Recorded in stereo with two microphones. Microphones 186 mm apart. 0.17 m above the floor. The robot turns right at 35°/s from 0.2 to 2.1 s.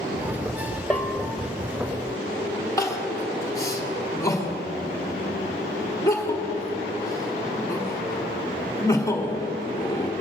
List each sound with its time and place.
0.9 s a bell: 5° left (ahead or behind), 0.7 m; by 1.3 s 15° left (ahead or behind), 0.7 m
2.8 s crying: 15° left (ahead or behind), 1.6 m